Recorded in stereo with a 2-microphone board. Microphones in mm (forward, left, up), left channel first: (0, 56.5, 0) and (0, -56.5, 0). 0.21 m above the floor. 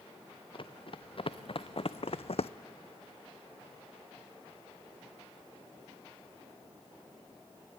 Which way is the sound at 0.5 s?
50° left (ahead or behind).